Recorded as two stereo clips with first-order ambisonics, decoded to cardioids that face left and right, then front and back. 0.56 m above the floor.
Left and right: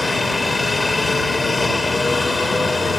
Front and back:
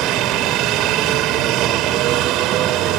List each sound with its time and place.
0.0 s a helicopter: 170° left